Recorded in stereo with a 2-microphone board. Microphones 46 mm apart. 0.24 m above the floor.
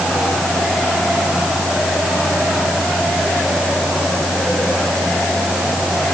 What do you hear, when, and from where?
Only background noise.